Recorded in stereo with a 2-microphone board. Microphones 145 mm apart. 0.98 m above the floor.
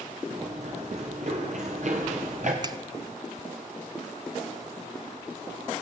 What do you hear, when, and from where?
0.3 s running footsteps: 50° right (ahead or behind), 5.5 m; by 2.5 s 55° right (ahead or behind), 6 m
2.6 s a finger snap: 30° right (ahead or behind), 1.1 m